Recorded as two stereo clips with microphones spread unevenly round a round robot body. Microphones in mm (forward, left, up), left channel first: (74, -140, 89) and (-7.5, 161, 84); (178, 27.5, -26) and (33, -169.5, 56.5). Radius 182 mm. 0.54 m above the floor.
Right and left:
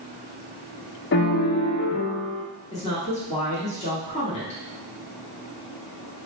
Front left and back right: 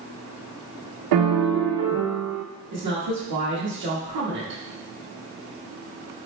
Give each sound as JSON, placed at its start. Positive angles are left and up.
{"t": 1.1, "sound": "a piano", "azimuth_deg": -130, "distance_m": 0.5}
{"t": 2.7, "sound": "a woman speaking", "azimuth_deg": -140, "distance_m": 1.2}